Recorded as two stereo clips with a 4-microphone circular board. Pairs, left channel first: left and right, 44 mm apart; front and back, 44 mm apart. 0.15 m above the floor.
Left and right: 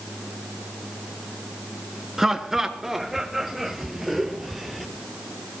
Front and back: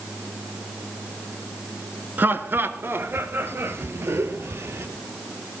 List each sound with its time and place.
2.2 s laughter: 170° right, 1.7 m; by 4.9 s 175° right, 3 m